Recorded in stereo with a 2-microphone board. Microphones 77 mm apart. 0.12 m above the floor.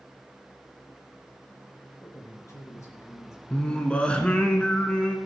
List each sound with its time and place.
2.0 s a man speaking: 45° left (ahead or behind), 2.5 m
3.5 s singing: 15° left (ahead or behind), 1.2 m